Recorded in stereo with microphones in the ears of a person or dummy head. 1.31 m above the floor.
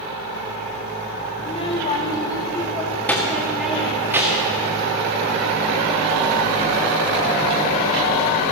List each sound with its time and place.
1.4 s a child speaking: 35° left (ahead or behind), 2.0 m; by 4.6 s 15° right (ahead or behind), 1.9 m